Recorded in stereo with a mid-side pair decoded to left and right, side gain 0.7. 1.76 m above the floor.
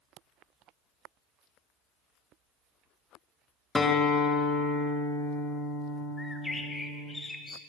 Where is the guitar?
25° left, 1.1 m.